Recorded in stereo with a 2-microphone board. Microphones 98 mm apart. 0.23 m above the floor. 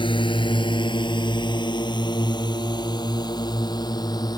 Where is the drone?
55° left (ahead or behind); by 4.4 s 40° left (ahead or behind).